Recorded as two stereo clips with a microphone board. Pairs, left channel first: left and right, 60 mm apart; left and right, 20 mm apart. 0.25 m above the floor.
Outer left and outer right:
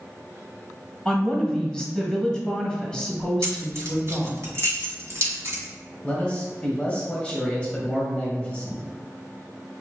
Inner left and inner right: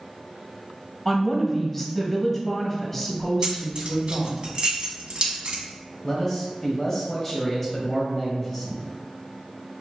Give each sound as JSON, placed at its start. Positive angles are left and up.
{"t": 1.1, "sound": "a woman speaking", "side_deg": 5, "distance_m": 1.1}
{"t": 3.4, "sound": "keys jangling", "side_deg": -45, "distance_m": 1.1}
{"t": 6.0, "sound": "a man speaking", "side_deg": 20, "distance_m": 1.1}